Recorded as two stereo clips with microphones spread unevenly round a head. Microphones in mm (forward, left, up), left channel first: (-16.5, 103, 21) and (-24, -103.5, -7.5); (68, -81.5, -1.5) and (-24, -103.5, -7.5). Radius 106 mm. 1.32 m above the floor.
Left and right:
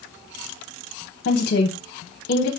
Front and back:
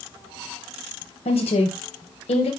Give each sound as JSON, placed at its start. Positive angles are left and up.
{"t": 1.2, "sound": "a woman speaking", "azimuth_deg": 45, "distance_m": 1.1}